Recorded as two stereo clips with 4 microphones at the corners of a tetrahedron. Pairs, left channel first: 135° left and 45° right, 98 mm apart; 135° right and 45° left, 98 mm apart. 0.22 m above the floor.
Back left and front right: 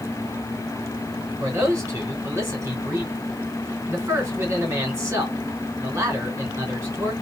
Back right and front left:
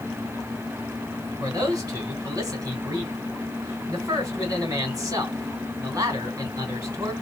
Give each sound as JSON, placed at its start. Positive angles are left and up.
{"t": 1.4, "sound": "a man speaking", "azimuth_deg": 5, "distance_m": 2.5}